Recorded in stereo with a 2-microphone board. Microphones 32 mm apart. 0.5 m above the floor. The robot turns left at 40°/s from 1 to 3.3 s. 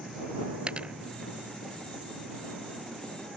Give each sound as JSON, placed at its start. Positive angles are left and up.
{"t": 0.7, "sound": "a dropped coin", "side_deg": -35}